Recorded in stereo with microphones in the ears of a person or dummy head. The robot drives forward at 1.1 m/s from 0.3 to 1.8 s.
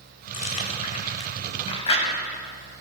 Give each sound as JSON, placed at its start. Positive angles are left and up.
{"t": 0.3, "sound": "chewing", "side_deg": 40, "distance_m": 3.5}